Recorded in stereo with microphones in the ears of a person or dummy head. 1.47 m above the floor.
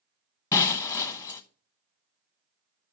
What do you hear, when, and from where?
0.5 s breaking glass: 15° left (ahead or behind), 0.9 m